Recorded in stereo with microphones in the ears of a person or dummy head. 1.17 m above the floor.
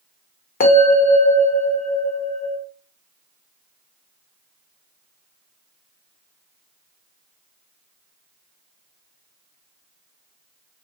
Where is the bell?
40° left (ahead or behind), 0.8 m.